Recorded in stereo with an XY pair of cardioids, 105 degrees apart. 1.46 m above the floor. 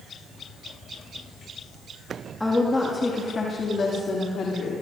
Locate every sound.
2.4 s a woman speaking: 5° left, 2 m; by 4.8 s 60° left, 3.5 m